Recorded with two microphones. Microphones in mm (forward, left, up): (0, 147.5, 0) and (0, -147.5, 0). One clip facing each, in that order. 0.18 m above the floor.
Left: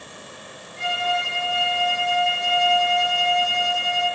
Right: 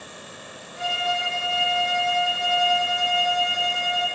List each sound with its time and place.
0.8 s a violin: 5° right (ahead or behind), 1.9 m